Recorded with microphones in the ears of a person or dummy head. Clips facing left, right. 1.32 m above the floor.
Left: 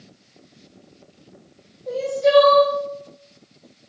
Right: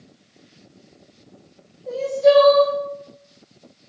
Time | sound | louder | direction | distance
1.9 | crying | right 3 dB | 5° left (ahead or behind) | 1.4 m